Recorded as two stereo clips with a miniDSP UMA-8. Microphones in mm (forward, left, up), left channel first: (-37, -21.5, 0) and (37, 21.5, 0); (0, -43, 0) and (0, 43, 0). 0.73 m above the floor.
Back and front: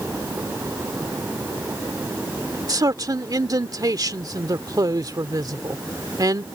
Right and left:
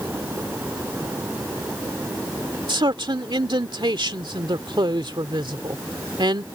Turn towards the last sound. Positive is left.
turn(degrees=70)